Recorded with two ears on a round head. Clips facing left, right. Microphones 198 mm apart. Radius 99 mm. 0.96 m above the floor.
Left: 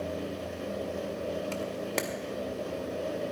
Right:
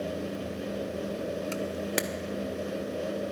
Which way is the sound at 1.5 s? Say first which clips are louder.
Right 2 dB; 15° right (ahead or behind).